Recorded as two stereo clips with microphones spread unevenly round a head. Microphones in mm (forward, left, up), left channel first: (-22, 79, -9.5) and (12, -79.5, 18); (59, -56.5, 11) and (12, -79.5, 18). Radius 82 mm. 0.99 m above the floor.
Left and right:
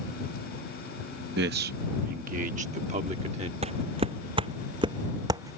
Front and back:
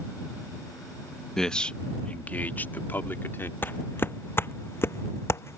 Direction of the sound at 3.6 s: 25° right.